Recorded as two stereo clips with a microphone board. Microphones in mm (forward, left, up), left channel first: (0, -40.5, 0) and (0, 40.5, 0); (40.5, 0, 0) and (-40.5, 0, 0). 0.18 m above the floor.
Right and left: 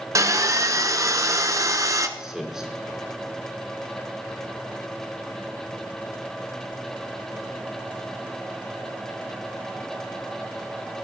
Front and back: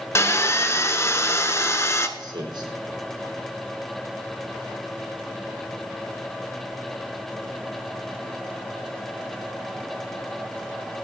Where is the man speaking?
170° left, 4.5 m.